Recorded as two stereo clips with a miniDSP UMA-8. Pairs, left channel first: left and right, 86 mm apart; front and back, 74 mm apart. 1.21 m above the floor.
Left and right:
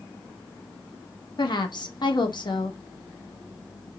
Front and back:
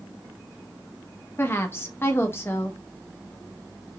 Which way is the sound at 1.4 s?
60° left.